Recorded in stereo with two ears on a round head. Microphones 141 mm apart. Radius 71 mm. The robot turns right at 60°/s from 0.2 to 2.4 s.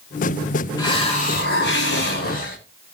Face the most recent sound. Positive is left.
turn(degrees=120)